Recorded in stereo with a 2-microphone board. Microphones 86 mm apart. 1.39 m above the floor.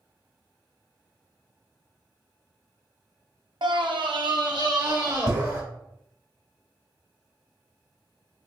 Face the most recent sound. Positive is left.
turn(degrees=-45)  # may be behind; listen again after turning